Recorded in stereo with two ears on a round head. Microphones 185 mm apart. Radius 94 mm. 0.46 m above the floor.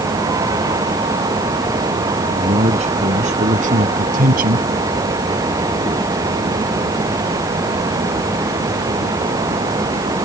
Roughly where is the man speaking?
Right.